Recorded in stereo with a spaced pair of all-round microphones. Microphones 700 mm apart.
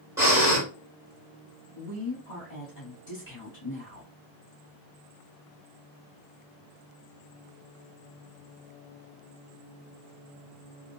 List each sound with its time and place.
0.2 s breathing: 5° right (ahead or behind), 1.5 m
1.8 s a woman speaking: 60° left (ahead or behind), 2.5 m